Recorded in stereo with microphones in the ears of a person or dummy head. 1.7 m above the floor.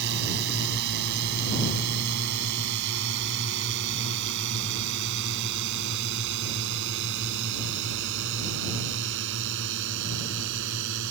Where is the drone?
55° right (ahead or behind); by 11.1 s 65° right (ahead or behind).